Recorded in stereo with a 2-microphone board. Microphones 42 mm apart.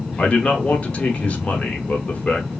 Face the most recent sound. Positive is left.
turn(degrees=30)  # may be behind; listen again after turning